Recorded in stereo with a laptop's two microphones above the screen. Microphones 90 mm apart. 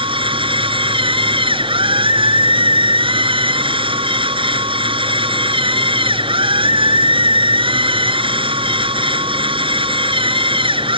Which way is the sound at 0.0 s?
80° right.